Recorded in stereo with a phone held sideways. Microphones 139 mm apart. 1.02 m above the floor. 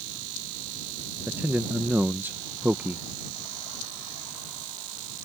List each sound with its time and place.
1.3 s a man speaking: 15° right (ahead or behind)